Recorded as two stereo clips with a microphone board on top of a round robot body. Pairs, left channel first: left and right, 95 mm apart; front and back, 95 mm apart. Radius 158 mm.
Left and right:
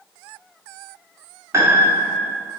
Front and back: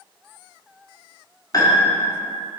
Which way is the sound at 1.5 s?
40° right.